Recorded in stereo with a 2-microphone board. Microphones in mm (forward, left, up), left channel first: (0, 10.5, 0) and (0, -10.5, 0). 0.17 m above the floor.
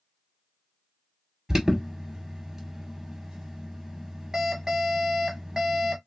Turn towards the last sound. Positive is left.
turn(degrees=-25)  # may be behind; listen again after turning